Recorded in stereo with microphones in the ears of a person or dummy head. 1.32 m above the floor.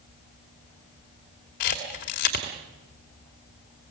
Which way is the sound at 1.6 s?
50° left (ahead or behind).